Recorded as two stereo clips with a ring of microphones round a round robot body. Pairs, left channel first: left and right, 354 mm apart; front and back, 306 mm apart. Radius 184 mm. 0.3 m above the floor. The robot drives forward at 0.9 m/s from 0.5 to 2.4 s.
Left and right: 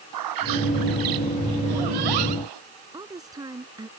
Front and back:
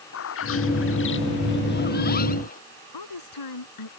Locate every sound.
0.1 s a bird: 55° right; by 2.6 s 70° right
2.9 s a woman speaking: 10° right